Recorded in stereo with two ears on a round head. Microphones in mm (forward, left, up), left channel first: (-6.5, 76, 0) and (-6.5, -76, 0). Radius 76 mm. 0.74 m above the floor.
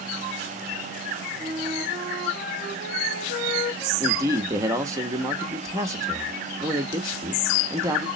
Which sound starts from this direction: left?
A flute, at 1.4 s.